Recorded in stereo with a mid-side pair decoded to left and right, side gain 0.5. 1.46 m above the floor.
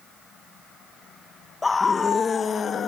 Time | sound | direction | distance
1.6 | a scream | 25° left | 1.4 m